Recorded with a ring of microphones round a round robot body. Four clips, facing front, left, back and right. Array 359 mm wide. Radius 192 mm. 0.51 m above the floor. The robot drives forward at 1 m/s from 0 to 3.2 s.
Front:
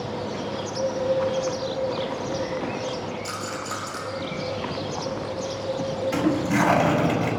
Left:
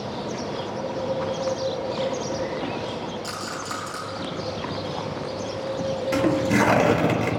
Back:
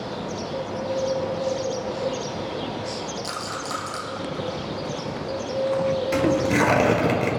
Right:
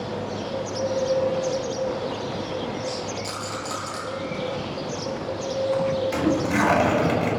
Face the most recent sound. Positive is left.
turn(degrees=135)